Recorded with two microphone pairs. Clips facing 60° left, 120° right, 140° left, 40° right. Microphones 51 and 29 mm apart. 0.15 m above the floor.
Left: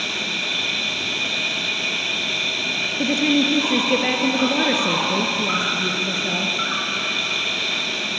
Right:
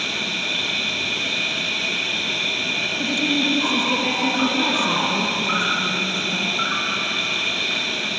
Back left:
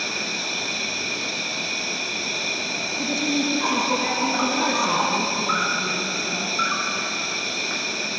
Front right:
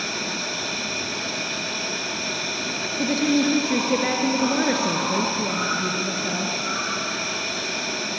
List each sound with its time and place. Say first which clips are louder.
0.0 s an insect: even, back left 1 dB; 160° left, 6.5 m
3.0 s a woman speaking: left 4 dB, front right 4 dB; 20° left, 2.5 m